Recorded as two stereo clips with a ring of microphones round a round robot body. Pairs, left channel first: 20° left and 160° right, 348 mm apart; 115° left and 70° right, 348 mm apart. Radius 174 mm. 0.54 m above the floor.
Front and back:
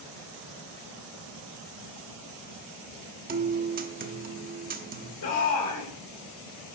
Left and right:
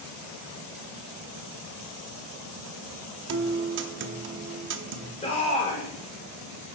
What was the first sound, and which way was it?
A guitar, 105° right.